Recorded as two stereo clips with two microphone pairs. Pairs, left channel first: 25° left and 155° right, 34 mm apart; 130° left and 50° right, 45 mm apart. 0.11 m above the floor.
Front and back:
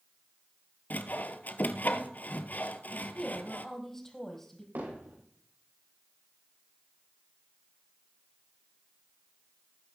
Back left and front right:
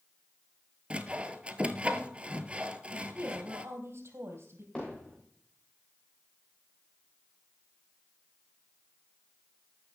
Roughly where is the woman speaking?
Ahead right.